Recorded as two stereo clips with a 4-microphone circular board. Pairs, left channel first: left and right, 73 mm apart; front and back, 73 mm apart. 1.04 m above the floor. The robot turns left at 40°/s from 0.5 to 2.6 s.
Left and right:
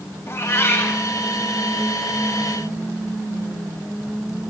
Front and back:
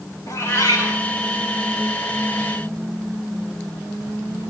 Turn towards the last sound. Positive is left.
turn(degrees=-45)